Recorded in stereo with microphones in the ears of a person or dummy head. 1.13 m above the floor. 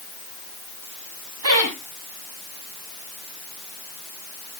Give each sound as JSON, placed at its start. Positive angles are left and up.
{"t": 1.4, "sound": "laughter", "side_deg": -80, "distance_m": 7.0}